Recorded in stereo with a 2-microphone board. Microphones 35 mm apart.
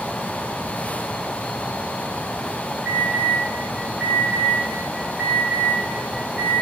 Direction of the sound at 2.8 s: 30° right (ahead or behind).